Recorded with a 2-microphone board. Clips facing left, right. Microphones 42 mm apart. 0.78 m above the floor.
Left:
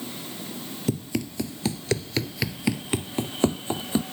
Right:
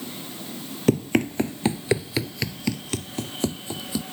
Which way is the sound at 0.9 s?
50° right (ahead or behind).